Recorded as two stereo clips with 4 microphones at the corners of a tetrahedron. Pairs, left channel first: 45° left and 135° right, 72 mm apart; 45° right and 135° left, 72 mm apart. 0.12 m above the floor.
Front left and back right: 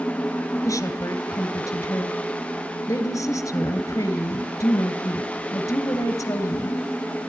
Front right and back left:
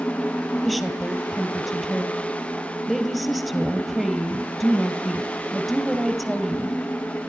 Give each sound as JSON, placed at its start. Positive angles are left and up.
{"t": 0.7, "sound": "a woman speaking", "azimuth_deg": 45, "distance_m": 2.0}